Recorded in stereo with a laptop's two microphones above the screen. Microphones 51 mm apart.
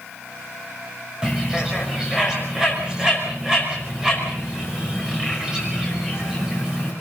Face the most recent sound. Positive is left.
turn(degrees=-15)  # may be behind; listen again after turning